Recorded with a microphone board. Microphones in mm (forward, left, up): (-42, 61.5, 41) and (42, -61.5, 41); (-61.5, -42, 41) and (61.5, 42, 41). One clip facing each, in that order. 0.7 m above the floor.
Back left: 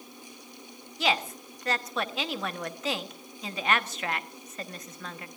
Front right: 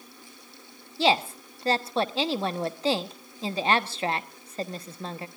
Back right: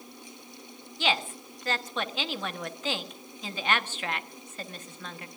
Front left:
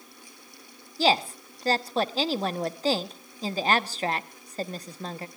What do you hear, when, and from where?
1.0 s a woman speaking: 5° right, 1.0 m